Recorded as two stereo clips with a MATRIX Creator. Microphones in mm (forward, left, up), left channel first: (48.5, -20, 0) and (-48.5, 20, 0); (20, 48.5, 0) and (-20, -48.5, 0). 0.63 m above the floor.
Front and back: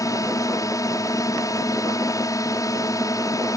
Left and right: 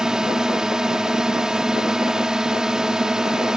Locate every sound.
0.0 s a drone: 35° right